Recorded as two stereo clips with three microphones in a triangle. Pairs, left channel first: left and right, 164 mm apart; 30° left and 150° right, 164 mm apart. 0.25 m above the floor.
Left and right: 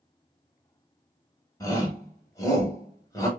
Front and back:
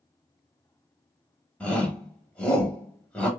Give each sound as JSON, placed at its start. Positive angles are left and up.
{"t": 1.6, "sound": "a shout", "azimuth_deg": 100, "distance_m": 0.9}